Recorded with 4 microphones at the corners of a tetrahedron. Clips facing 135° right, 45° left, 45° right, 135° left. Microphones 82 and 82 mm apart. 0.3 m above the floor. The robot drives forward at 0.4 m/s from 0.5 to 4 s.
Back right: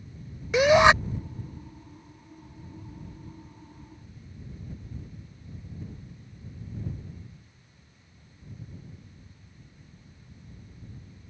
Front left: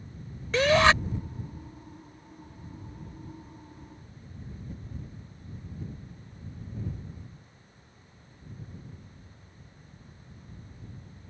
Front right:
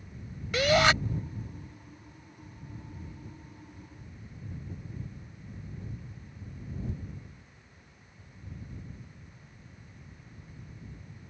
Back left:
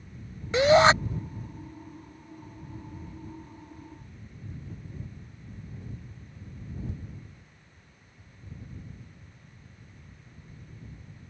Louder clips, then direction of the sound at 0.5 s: Back right 3 dB, back left 6 dB; 160° left.